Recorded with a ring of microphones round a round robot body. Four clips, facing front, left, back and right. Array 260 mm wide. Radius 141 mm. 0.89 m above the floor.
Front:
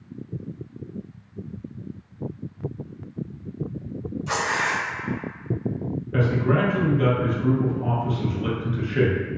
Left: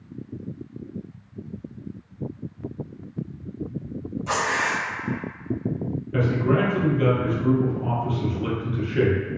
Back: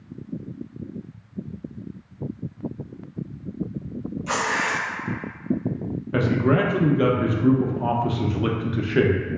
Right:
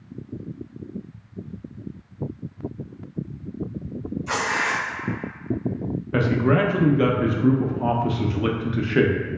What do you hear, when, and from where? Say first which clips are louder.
4.3 s tearing paper: left 1 dB, even; 100° left, 0.9 m
6.1 s a man speaking: right 2 dB, back 2 dB; 125° right, 0.5 m